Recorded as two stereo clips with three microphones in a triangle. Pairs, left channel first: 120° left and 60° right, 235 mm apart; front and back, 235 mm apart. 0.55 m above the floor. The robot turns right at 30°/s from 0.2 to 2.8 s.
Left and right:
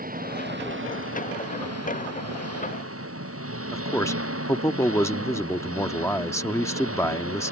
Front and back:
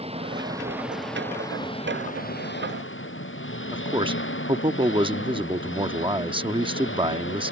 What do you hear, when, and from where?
0.0 s an engine running: 115° right; by 7.5 s 35° right
3.7 s a man speaking: 175° left